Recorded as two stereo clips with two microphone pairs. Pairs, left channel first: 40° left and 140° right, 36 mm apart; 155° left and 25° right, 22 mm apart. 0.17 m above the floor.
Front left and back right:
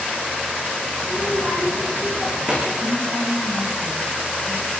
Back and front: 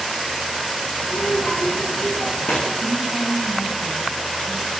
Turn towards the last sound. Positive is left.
turn(degrees=-130)